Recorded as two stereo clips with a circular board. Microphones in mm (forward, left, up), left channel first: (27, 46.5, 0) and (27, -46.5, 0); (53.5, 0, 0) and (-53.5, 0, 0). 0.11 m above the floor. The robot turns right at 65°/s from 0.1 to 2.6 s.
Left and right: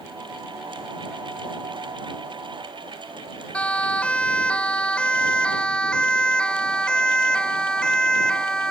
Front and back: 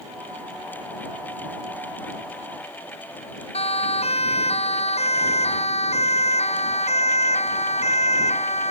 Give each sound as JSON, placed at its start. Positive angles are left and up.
{"t": 3.5, "sound": "a siren", "azimuth_deg": 10}